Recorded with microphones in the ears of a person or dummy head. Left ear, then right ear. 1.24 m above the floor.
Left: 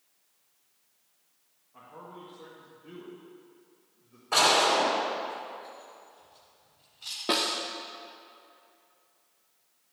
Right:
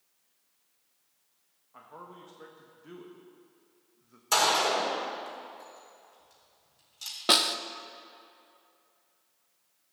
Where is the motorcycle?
No motorcycle in this recording.